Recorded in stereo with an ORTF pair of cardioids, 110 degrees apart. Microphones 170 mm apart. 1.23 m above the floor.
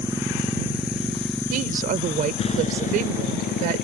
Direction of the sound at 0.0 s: 20° right.